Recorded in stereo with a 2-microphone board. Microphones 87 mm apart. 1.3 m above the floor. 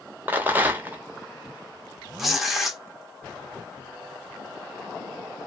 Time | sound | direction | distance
0.3 | a rattle | 20° right (ahead or behind) | 0.6 m
2.2 | tearing paper | centre (ahead or behind) | 0.6 m